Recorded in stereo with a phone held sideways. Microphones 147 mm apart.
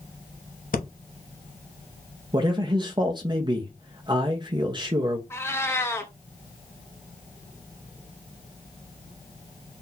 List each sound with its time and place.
0.7 s breathing: 75° left (ahead or behind), 0.8 m
2.3 s a man speaking: 30° right (ahead or behind), 0.5 m
5.3 s a cat meowing: 15° left (ahead or behind), 0.8 m